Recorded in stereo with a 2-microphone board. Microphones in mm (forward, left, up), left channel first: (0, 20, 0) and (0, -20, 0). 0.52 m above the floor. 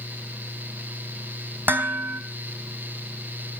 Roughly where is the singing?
No singing in this recording.